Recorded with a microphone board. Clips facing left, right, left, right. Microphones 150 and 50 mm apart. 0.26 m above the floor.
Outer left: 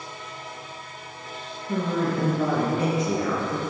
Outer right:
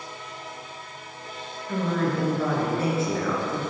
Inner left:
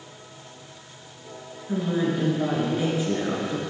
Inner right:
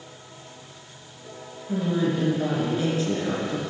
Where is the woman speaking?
20° left (ahead or behind), 3 m.